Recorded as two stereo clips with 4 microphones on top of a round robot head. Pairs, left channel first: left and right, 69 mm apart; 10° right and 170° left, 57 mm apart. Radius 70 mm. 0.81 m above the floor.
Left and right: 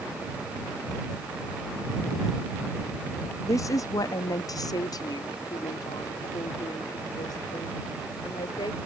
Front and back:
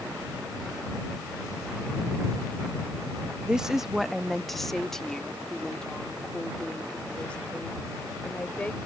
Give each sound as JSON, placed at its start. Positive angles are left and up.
{"t": 3.5, "sound": "a woman speaking", "azimuth_deg": 100}